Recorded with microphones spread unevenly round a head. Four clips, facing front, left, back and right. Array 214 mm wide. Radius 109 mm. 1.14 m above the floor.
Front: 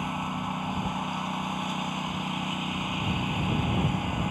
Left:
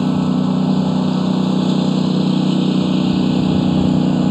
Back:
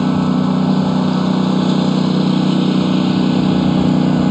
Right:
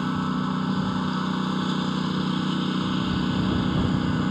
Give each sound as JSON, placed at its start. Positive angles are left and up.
{"t": 0.0, "sound": "a lawn mower", "azimuth_deg": 140}